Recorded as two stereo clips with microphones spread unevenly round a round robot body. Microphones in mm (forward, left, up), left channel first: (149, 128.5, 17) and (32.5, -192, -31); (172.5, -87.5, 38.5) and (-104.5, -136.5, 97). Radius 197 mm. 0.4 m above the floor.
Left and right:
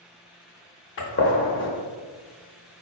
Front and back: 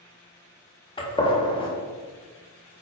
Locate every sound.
1.0 s a gunshot: 35° left, 0.7 m